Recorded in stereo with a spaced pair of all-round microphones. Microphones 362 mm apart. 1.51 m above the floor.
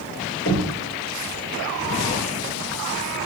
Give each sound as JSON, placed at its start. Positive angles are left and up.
{"t": 0.5, "sound": "knocking", "side_deg": 30, "distance_m": 1.4}